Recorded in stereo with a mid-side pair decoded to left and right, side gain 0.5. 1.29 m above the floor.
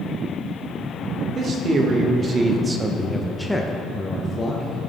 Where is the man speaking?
55° right, 1.5 m; by 4.8 s 50° left, 1.1 m.